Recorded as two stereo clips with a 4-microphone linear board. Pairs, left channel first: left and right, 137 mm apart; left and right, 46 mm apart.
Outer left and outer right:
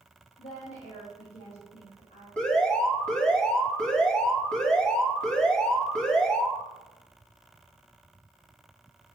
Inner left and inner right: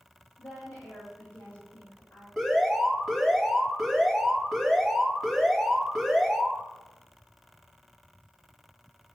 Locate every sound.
0.4 s a woman speaking: 65° left (ahead or behind), 4 m
2.4 s an alarm: 5° left (ahead or behind), 1.8 m